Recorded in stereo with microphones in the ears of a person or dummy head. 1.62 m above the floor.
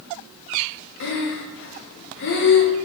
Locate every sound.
1.0 s breathing: 65° left (ahead or behind), 0.5 m